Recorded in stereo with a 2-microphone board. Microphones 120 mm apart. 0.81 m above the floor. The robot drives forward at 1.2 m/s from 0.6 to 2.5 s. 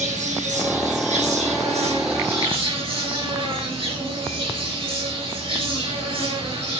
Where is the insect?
80° right, 3 m; by 6.8 s 50° right (ahead or behind), 3.5 m.